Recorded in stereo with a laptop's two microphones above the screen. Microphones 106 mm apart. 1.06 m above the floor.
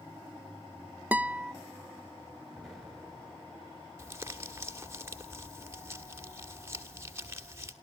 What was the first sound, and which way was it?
A guitar, 15° right (ahead or behind).